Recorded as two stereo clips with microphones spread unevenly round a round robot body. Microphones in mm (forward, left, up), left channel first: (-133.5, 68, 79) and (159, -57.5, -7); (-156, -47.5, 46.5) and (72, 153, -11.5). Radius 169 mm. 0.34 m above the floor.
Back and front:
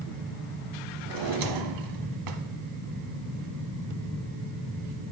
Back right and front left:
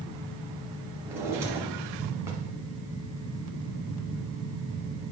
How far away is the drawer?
About 1.4 m.